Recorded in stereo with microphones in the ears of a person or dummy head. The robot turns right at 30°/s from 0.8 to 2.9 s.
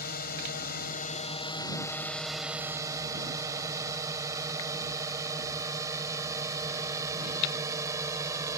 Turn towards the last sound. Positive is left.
turn(degrees=-15)  # may be behind; listen again after turning